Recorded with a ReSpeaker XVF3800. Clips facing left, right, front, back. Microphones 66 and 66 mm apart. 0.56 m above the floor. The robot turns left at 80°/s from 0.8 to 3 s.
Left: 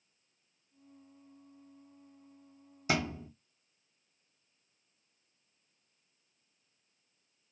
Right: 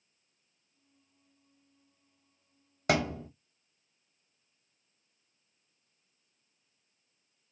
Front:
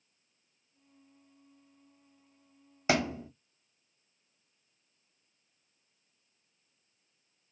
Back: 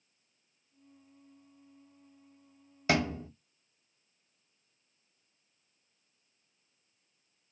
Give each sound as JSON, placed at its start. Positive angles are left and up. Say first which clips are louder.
{"t": 2.9, "sound": "a thud", "louder": "right 4 dB, even", "azimuth_deg": -70, "distance_m": 1.2}